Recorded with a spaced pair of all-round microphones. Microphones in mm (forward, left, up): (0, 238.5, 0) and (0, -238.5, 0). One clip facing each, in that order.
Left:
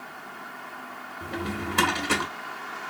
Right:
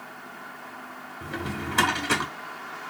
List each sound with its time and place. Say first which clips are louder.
1.2 s a drawer: left 1 dB; centre (ahead or behind), 0.6 m